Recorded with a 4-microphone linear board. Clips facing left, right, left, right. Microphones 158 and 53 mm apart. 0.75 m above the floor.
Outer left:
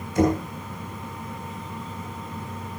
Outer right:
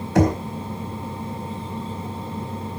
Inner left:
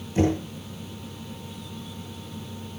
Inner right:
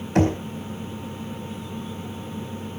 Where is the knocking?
80° right, 4 m.